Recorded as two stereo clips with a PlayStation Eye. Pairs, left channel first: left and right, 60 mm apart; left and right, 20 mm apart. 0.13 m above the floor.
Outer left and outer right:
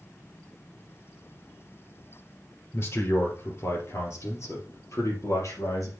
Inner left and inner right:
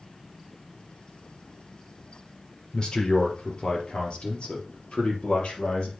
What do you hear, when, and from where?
2.7 s a man speaking: 45° left (ahead or behind), 3 m; by 5.9 s 65° left (ahead or behind), 4.5 m